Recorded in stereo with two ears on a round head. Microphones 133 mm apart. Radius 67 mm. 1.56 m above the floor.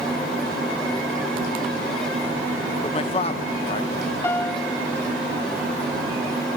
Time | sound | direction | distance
2.8 | a man speaking | 40° left (ahead or behind) | ?
4.2 | a piano | 15° left (ahead or behind) | ?